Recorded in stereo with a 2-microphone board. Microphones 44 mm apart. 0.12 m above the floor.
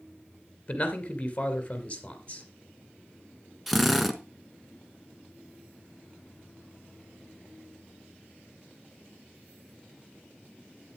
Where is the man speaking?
30° left (ahead or behind), 2.0 m.